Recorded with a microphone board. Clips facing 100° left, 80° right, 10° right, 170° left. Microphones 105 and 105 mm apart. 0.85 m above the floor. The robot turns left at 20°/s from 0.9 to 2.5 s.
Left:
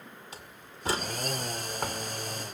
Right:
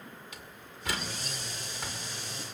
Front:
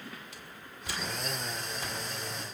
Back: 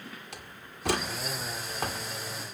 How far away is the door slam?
About 2 m.